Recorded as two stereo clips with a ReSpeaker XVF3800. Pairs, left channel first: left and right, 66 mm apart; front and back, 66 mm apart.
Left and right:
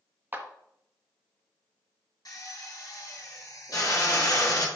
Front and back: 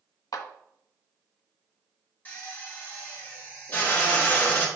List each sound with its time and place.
0.3 s a clap: 30° right, 1.1 m
2.2 s a drill: 65° left, 3.5 m